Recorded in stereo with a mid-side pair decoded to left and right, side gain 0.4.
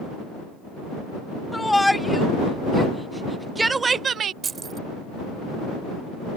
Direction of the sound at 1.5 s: 15° left.